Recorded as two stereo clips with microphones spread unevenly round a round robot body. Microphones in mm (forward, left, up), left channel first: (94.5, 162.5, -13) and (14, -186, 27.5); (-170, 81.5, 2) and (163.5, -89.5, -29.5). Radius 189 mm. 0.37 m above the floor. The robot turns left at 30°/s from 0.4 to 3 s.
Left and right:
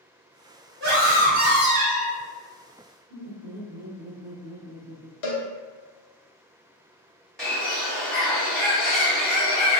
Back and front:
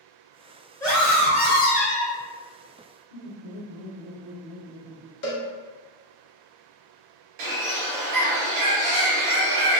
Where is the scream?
130° right, 1.3 m; by 2.2 s 170° right, 1.3 m.